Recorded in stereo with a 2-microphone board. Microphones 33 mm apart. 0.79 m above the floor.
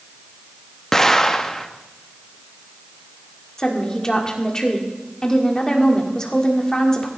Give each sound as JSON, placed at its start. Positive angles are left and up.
{"t": 0.9, "sound": "an explosion", "side_deg": 15, "distance_m": 0.6}
{"t": 3.6, "sound": "a woman speaking", "side_deg": 20, "distance_m": 1.7}